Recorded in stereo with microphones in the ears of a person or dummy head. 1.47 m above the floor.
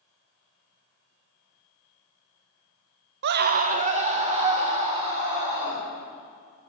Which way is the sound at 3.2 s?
60° right (ahead or behind).